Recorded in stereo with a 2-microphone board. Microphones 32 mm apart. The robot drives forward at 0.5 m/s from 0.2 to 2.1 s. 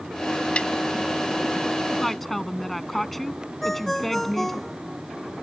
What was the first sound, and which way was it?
A snare drum, 40° left (ahead or behind).